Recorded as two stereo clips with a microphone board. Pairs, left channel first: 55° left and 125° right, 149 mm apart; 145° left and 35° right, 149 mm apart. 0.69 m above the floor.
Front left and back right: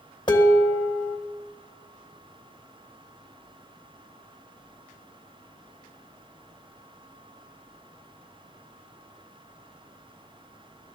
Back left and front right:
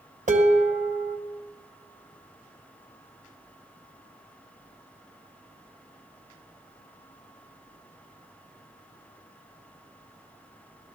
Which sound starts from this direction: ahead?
Dishes clattering, at 0.3 s.